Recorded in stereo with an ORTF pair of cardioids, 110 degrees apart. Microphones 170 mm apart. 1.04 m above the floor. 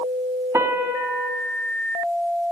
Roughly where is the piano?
Ahead.